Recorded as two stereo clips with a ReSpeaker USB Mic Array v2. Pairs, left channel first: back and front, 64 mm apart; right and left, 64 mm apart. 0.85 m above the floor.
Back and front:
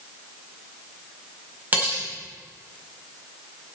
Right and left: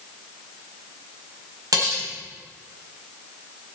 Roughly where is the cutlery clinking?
Ahead left.